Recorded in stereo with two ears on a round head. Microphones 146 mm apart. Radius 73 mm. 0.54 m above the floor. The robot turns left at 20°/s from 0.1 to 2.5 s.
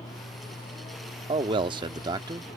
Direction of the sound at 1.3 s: 30° right (ahead or behind).